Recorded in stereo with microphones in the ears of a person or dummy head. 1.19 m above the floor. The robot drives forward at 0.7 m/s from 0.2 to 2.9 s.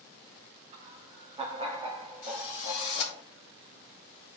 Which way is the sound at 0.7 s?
40° right (ahead or behind).